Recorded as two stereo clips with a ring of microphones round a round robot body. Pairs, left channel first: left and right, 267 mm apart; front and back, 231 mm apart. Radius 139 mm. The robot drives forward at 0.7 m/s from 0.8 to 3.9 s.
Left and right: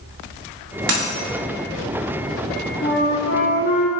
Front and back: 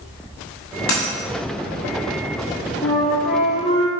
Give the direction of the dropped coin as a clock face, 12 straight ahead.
1 o'clock.